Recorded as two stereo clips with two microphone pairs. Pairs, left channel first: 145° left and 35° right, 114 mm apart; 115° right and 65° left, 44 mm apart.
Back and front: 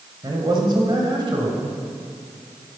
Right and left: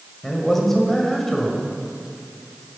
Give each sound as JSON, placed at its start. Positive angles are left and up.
{"t": 0.2, "sound": "a man speaking", "azimuth_deg": -40, "distance_m": 1.7}